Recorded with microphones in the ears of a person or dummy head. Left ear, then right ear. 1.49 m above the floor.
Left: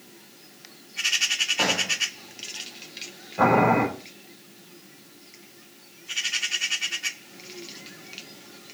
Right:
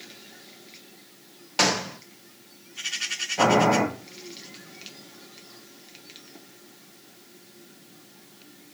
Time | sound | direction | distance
1.6 | a gunshot | 75° right (ahead or behind) | 1.3 m
3.4 | boiling | 30° right (ahead or behind) | 6 m